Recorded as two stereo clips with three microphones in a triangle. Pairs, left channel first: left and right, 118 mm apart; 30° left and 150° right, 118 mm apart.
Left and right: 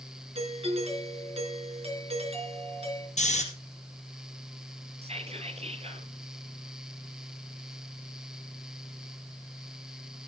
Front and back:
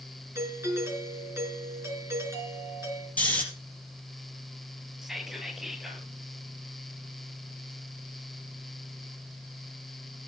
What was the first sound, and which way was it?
A doorbell, 85° right.